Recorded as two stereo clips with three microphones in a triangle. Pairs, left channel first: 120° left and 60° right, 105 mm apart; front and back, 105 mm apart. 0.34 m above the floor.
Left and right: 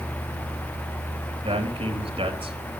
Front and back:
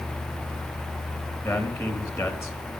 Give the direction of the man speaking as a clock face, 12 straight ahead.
2 o'clock.